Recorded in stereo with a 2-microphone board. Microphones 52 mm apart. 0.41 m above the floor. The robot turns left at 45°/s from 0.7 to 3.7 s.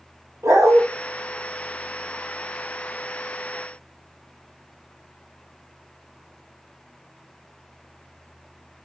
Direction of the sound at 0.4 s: 75° right (ahead or behind).